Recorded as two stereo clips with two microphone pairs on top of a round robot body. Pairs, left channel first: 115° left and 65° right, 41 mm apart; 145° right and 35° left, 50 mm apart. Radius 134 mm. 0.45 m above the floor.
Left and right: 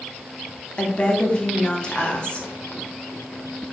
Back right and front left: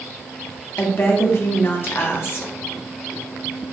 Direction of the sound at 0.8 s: 170° right.